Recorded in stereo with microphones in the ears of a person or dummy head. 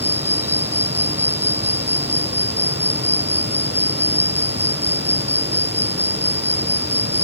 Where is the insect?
15° right (ahead or behind).